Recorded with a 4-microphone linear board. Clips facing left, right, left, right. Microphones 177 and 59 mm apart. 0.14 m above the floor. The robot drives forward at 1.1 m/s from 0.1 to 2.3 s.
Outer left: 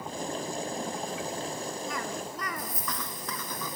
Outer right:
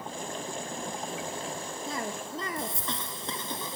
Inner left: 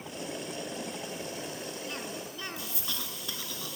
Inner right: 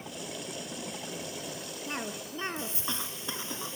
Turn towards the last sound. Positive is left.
turn(degrees=-30)  # may be behind; listen again after turning